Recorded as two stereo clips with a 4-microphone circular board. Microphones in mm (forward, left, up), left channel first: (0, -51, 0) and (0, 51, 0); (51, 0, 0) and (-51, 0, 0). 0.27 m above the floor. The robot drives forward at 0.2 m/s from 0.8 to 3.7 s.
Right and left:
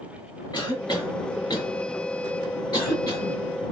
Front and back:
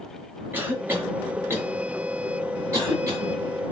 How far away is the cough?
About 2 m.